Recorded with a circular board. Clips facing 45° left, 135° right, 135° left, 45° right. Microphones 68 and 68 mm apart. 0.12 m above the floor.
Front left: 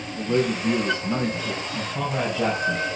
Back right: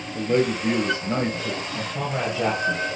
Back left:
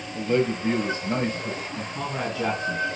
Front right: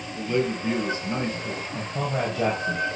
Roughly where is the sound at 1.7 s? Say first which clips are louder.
Front left 3 dB, front right 2 dB; ahead right.